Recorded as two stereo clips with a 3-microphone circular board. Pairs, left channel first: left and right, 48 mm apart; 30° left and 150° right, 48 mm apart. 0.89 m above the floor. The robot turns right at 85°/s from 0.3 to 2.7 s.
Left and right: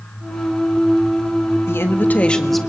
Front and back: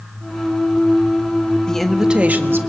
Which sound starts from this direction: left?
A woman speaking, at 1.7 s.